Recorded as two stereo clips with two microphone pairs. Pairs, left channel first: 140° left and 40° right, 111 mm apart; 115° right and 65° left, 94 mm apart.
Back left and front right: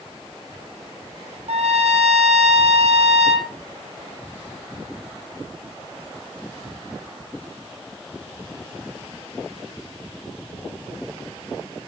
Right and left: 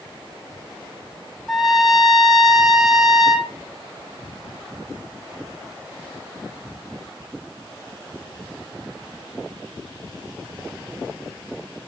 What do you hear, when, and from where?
1.5 s a trumpet: 25° right, 2 m